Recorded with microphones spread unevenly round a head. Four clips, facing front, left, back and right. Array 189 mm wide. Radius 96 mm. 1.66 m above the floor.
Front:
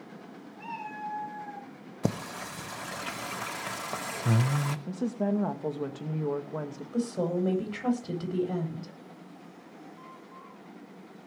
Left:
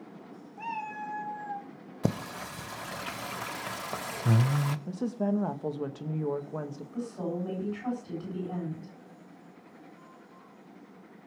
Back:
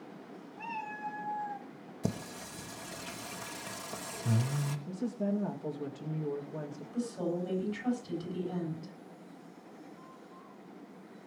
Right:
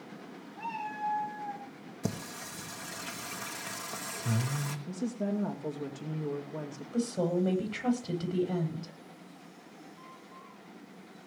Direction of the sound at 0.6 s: 115° left.